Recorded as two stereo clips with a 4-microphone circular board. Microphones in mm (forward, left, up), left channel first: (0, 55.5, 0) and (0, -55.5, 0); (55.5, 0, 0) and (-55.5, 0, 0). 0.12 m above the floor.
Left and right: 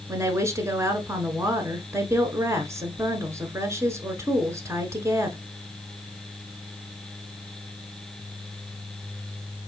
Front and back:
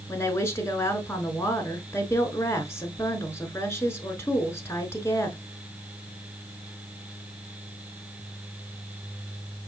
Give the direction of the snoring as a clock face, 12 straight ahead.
I don't hear snoring.